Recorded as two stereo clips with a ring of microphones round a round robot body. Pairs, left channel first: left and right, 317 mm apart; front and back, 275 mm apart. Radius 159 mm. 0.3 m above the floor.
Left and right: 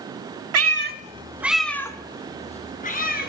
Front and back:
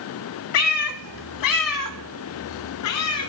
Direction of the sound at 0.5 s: 45° right.